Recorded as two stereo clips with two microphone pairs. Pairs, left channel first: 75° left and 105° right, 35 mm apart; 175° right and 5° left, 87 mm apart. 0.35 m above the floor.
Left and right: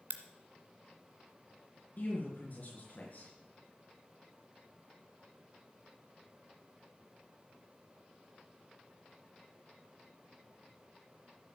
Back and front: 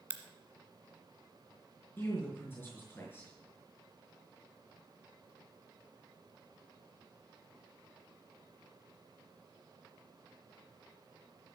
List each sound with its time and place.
0.1 s a crack: 70° right, 1.4 m
2.0 s a man speaking: 120° left, 5.5 m